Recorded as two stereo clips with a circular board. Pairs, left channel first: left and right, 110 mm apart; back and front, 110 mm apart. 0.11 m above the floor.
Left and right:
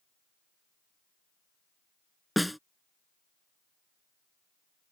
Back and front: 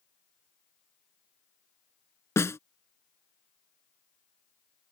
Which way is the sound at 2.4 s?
Straight behind.